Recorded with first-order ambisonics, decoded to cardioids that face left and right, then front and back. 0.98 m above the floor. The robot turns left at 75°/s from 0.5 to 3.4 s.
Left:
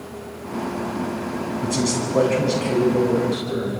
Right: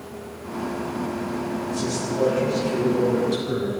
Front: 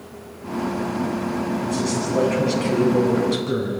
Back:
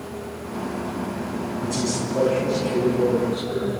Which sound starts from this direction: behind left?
A man speaking, at 1.6 s.